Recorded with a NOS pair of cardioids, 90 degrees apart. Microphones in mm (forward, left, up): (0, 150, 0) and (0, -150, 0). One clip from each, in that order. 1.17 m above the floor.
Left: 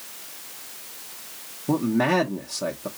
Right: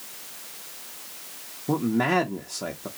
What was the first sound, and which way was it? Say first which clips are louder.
A man speaking: left 2 dB; straight ahead.